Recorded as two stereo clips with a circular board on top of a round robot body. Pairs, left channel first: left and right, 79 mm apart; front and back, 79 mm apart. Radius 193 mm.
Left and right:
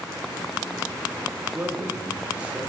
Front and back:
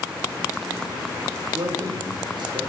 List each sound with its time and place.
1.5 s a man speaking: 155° right, 1.8 m; by 2.7 s 170° right, 2.5 m